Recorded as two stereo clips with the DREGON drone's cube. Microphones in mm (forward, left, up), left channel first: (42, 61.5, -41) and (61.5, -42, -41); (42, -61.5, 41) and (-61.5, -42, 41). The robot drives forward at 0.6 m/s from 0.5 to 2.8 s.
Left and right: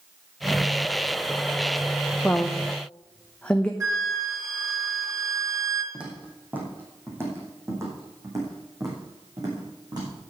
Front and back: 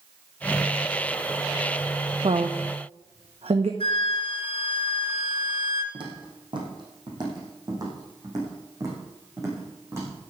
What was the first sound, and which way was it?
A woman speaking, straight behind.